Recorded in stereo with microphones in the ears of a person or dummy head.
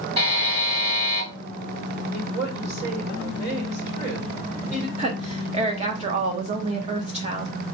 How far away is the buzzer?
About 2.5 m.